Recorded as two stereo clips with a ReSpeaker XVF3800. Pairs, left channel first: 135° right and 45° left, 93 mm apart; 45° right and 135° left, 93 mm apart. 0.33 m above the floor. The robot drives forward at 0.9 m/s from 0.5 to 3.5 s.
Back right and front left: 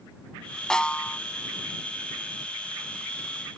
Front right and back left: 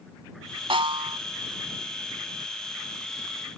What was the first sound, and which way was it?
A snare drum, 140° left.